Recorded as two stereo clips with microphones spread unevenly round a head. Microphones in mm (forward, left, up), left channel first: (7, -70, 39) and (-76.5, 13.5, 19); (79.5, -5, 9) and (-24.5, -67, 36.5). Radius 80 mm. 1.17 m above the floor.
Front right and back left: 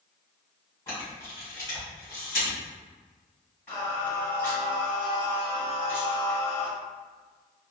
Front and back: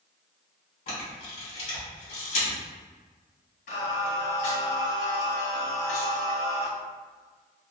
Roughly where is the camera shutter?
Ahead.